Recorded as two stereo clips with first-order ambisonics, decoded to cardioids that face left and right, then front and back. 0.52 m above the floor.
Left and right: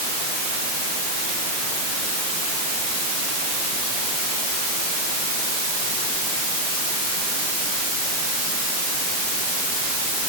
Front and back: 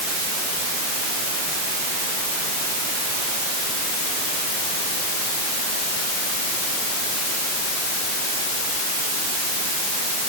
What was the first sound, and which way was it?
Only background noise.